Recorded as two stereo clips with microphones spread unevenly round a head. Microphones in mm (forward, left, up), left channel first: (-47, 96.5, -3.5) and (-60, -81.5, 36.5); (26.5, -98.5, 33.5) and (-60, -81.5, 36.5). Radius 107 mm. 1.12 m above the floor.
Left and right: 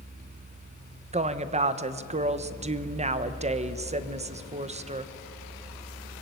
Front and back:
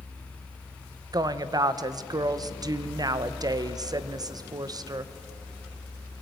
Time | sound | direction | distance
1.1 | a woman speaking | 150° right | 1.2 m